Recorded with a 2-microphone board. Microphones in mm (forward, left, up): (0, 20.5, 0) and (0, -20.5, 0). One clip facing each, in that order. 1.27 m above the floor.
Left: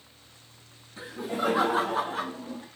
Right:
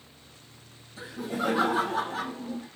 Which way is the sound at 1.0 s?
75° left (ahead or behind).